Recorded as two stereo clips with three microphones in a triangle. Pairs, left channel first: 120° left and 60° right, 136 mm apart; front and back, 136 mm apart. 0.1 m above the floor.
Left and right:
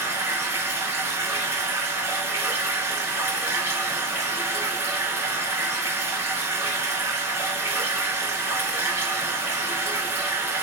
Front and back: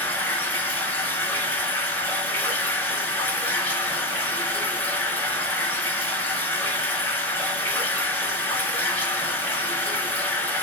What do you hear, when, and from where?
0.0 s running water: 45° right, 1.0 m